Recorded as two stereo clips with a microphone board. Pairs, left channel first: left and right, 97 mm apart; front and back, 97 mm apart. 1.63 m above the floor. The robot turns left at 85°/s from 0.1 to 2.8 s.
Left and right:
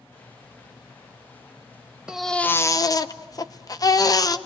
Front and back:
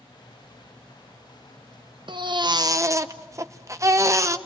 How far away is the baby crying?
About 0.9 m.